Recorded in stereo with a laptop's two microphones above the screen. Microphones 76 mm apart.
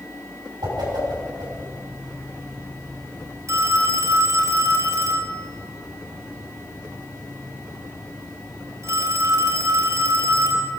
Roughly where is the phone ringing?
Right.